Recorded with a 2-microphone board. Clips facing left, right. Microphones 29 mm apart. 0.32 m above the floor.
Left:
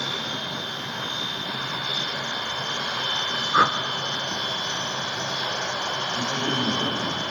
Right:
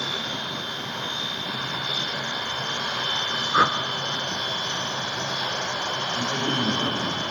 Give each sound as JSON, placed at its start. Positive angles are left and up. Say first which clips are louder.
{"t": 3.5, "sound": "a whoosh", "louder": "left 1 dB", "side_deg": 5, "distance_m": 0.9}
{"t": 6.2, "sound": "a man speaking", "louder": "right 1 dB", "side_deg": -70, "distance_m": 7.0}